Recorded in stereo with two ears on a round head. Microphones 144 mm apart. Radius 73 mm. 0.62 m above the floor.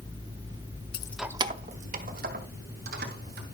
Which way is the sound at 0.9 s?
35° left (ahead or behind).